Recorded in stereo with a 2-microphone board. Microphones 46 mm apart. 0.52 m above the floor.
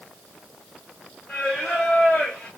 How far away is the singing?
About 1.4 m.